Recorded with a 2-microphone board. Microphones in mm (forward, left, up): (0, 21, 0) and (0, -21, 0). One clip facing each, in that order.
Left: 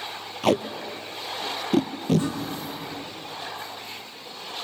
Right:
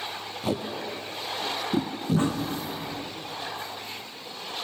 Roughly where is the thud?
Right.